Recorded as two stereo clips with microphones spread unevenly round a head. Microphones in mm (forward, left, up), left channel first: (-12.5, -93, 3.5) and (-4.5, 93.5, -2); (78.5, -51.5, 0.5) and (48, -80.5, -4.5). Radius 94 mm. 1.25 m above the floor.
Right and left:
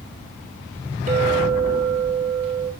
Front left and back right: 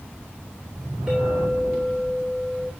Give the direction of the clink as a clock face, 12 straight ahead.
7 o'clock.